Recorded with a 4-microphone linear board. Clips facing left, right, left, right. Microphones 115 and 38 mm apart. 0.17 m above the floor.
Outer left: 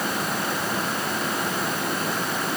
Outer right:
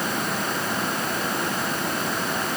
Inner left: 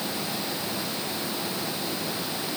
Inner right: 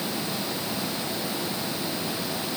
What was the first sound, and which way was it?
Only background noise.